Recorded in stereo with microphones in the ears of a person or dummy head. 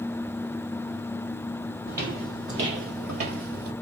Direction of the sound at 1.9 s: 20° right (ahead or behind).